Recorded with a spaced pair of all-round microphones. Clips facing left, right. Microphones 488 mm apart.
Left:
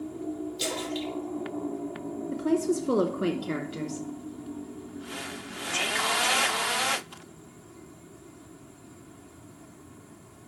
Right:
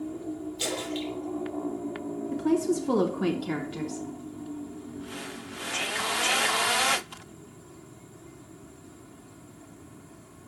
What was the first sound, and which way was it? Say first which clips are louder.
A splash: even; 60° left (ahead or behind).